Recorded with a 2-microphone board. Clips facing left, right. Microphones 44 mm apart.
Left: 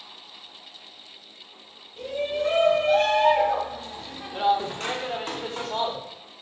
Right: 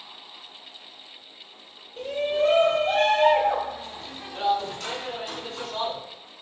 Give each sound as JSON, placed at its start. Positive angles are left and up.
{"t": 2.0, "sound": "a shout", "side_deg": -55, "distance_m": 1.8}